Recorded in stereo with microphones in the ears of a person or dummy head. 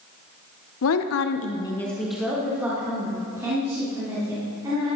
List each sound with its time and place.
0.8 s a woman speaking: 80° left, 0.8 m; by 4.9 s 20° right (ahead or behind), 4.5 m